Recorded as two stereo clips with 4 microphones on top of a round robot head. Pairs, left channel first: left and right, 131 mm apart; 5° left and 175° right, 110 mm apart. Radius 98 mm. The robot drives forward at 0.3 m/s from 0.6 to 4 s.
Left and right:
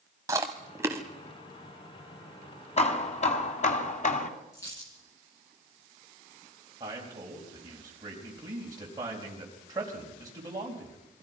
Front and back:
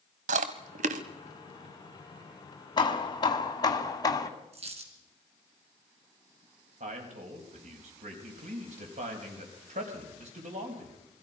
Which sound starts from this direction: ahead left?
Hammering, at 2.8 s.